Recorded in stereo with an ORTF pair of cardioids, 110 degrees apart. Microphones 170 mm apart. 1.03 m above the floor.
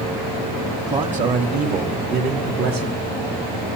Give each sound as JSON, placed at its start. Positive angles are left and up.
{"t": 0.9, "sound": "a man speaking", "azimuth_deg": -45, "distance_m": 1.9}